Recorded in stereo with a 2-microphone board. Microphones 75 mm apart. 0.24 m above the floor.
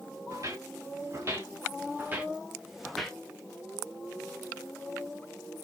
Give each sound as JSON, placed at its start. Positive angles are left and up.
{"t": 0.3, "sound": "footsteps", "side_deg": -45, "distance_m": 2.5}